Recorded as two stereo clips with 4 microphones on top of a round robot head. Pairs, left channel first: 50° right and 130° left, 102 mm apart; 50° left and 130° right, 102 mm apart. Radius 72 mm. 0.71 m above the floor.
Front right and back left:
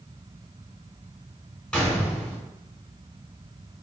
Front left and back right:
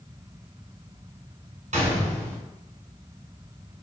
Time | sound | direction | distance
1.7 | a gunshot | 135° right | 1.5 m